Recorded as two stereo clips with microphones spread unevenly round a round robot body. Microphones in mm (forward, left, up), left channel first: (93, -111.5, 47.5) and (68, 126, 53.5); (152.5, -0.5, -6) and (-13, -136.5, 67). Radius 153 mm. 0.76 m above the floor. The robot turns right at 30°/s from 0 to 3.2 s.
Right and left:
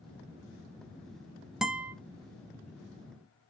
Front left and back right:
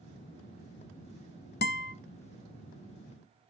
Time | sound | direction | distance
1.6 | a guitar | 15° left | 0.6 m